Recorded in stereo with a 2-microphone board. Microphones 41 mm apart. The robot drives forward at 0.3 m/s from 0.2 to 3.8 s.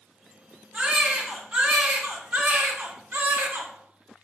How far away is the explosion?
No explosion in this recording.